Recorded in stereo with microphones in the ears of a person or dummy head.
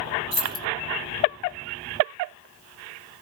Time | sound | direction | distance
0.3 | keys jangling | 35° left (ahead or behind) | 0.9 m